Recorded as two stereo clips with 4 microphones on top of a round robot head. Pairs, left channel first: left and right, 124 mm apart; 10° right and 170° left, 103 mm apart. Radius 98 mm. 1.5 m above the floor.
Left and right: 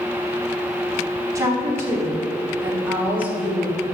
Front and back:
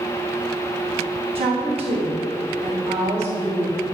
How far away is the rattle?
I don't hear a rattle.